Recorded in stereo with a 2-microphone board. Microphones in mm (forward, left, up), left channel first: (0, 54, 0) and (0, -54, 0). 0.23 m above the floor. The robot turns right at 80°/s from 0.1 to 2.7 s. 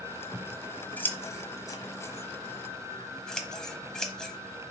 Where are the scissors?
10° right (ahead or behind), 1.0 m; by 4.3 s 5° left (ahead or behind), 1.0 m.